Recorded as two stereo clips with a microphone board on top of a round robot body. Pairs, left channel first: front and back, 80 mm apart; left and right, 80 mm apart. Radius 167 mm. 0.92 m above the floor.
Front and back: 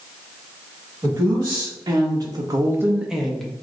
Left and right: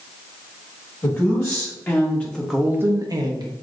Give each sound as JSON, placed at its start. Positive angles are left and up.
{"t": 1.0, "sound": "a woman speaking", "azimuth_deg": 135, "distance_m": 1.4}